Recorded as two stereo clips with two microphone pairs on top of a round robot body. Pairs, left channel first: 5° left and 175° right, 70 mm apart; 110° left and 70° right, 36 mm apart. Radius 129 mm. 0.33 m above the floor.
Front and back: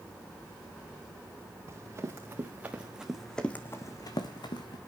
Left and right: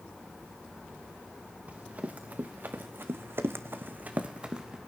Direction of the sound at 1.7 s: 120° right.